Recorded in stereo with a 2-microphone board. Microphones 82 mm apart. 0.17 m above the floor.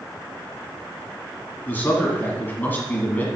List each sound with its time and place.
1.7 s a man speaking: 25° left (ahead or behind), 1.4 m